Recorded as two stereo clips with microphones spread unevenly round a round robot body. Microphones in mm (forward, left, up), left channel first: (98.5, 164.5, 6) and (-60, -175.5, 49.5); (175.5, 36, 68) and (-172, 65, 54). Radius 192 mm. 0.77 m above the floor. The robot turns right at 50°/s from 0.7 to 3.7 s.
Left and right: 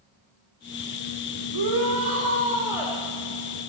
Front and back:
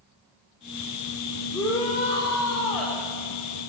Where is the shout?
95° right, 2.5 m; by 3.0 s 20° right, 2.5 m.